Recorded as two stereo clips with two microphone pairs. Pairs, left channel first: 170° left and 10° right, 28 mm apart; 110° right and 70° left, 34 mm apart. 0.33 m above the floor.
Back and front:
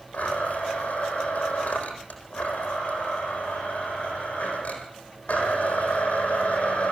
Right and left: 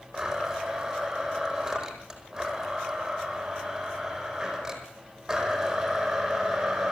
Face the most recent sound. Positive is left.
turn(degrees=145)